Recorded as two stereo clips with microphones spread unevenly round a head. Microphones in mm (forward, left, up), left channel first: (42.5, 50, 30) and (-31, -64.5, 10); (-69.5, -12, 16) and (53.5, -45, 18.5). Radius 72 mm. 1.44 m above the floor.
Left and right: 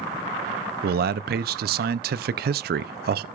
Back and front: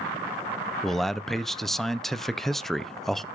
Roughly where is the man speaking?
Right.